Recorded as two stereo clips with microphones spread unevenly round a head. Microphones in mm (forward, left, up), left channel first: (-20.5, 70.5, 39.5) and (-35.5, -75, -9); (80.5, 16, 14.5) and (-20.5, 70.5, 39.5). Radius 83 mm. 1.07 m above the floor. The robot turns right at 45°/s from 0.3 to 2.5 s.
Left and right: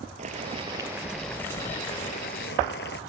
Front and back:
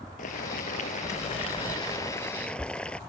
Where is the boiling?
45° right; by 3.0 s 55° left.